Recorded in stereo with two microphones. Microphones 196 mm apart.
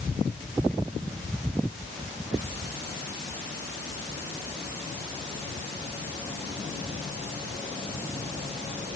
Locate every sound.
Only background noise.